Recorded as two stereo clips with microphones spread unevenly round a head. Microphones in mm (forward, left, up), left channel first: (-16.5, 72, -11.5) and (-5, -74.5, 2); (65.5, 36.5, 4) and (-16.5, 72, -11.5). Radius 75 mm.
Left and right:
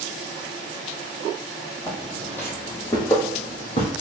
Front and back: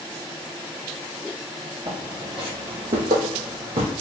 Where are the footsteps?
175° right, 1.4 m; by 3.9 s 150° left, 2 m.